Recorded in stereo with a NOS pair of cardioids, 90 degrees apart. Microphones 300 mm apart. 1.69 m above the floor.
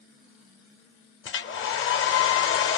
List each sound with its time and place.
1.2 s a hair dryer: 45° left, 0.6 m